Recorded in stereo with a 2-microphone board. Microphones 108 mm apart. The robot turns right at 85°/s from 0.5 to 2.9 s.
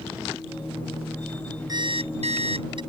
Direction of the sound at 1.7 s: 140° right.